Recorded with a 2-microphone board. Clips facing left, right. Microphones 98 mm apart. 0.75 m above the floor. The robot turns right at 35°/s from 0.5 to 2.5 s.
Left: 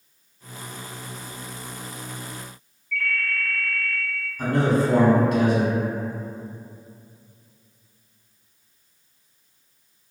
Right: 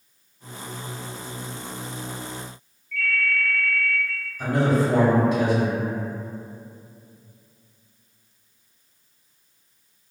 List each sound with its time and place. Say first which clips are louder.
2.9 s a ringtone: right 2 dB; 70° left (ahead or behind), 1.2 m
4.4 s a man speaking: even; 60° left (ahead or behind), 1.5 m